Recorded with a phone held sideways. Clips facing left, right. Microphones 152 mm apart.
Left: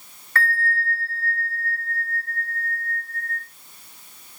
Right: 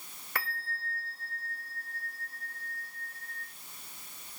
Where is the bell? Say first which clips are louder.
Left 13 dB; 15° right (ahead or behind), 1.1 m.